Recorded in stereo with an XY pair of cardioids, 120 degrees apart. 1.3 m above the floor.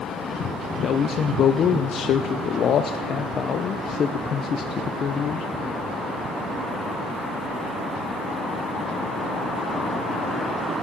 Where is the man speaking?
50° left, 0.6 m.